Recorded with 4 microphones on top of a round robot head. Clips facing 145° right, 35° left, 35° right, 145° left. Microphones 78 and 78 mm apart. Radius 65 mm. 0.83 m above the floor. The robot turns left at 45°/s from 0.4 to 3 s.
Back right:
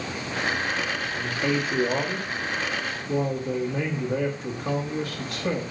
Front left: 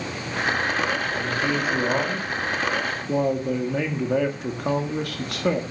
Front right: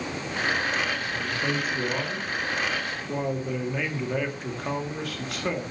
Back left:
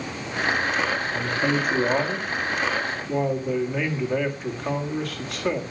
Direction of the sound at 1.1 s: 135° left.